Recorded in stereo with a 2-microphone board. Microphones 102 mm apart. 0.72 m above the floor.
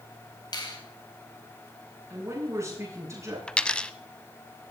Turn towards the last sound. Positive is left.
turn(degrees=10)  # may be behind; listen again after turning